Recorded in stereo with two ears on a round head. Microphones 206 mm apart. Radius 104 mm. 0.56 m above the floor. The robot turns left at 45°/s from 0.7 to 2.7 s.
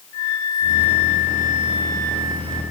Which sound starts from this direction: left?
A flute, at 0.1 s.